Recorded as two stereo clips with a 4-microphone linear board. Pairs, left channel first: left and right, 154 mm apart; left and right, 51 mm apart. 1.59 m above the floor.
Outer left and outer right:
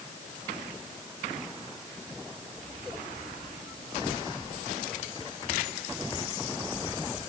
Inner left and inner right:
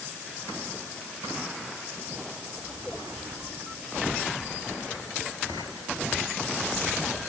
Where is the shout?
I don't hear a shout.